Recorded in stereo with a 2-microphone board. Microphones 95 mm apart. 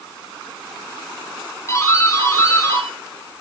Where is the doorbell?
30° left (ahead or behind), 4.5 m.